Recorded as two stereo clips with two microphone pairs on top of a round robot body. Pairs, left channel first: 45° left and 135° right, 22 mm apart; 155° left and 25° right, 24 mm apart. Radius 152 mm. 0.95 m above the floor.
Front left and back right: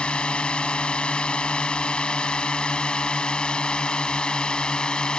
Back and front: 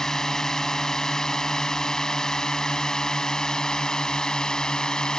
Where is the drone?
85° left; by 5.2 s 95° left.